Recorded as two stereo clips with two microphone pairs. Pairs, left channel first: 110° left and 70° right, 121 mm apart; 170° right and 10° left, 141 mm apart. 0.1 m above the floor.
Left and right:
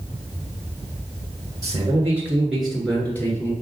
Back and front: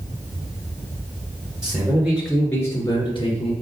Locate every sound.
1.6 s a man speaking: 35° right, 1.6 m; by 3.5 s 175° left, 1.9 m